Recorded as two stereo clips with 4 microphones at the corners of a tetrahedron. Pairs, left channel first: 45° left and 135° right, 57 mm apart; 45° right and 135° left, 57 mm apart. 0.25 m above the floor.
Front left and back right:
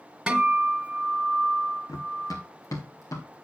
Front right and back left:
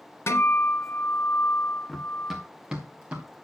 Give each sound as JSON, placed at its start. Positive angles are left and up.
{"t": 0.3, "sound": "a guitar", "azimuth_deg": -65, "distance_m": 1.3}
{"t": 1.9, "sound": "running footsteps", "azimuth_deg": 40, "distance_m": 1.1}